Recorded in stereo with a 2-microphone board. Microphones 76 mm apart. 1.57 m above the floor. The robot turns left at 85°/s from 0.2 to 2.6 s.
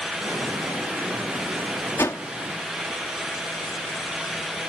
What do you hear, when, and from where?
2.0 s a whoosh: 35° left (ahead or behind); by 2.2 s 55° left (ahead or behind)